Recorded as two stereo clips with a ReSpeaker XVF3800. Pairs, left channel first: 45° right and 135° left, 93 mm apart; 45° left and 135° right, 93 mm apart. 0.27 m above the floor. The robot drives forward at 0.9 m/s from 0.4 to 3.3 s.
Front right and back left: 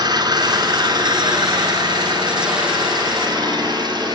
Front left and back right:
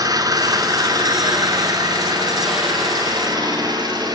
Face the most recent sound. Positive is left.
turn(degrees=180)